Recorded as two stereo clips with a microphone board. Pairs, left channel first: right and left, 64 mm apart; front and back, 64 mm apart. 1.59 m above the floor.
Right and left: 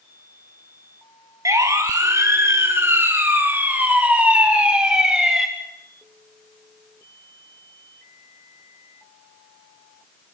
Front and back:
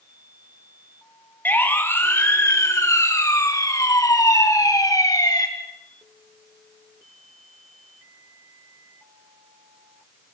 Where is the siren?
60° left, 4 m; by 5.5 s 10° left, 4.5 m.